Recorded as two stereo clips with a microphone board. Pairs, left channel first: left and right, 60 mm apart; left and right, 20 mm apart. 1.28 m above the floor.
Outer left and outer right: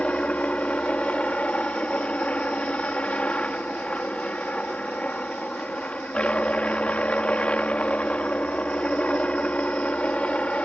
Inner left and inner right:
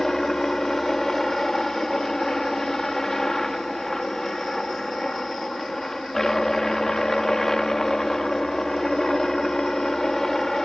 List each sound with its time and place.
0.0 s a helicopter: 20° left (ahead or behind)